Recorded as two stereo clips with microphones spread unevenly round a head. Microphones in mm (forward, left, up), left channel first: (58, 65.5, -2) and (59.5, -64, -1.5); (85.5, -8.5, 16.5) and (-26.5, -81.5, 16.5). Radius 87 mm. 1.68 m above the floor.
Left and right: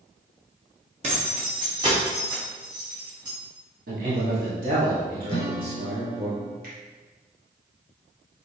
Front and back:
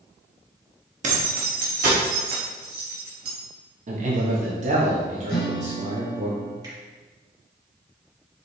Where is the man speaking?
115° right, 1.1 m.